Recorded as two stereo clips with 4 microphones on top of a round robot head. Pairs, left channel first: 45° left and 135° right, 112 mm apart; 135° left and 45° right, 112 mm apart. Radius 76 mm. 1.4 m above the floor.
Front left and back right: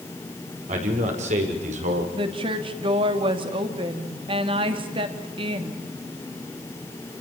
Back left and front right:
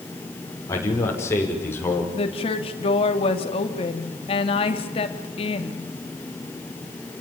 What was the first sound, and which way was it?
A man speaking, 160° right.